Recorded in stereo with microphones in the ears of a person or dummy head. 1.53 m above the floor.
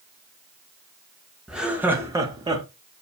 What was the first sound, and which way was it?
Laughter, centre (ahead or behind).